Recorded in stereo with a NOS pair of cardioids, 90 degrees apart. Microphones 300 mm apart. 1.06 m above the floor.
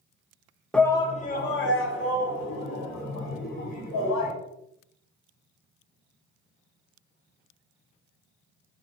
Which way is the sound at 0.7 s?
5° left.